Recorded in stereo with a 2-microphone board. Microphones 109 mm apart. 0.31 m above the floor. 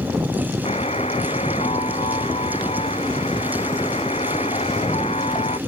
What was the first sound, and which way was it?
A buzzer, 80° left.